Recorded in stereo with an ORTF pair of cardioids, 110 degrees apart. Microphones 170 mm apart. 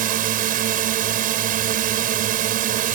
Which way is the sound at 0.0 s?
60° right.